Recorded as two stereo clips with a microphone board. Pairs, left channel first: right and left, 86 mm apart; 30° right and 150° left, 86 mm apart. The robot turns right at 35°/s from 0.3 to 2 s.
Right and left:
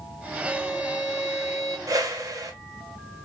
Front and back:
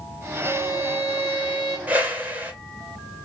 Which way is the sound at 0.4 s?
150° right.